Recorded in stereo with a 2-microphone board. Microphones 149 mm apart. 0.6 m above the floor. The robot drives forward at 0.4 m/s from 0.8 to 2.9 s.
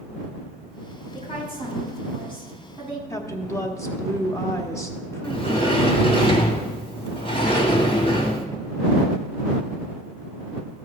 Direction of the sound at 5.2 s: 40° left (ahead or behind).